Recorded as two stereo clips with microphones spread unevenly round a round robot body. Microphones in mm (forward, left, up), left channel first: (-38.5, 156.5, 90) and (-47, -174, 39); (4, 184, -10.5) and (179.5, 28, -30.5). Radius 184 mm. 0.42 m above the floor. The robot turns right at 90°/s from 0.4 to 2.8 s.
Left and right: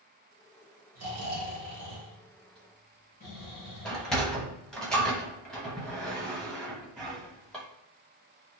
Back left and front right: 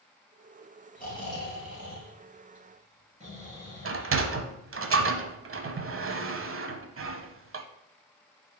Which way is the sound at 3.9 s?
Straight ahead.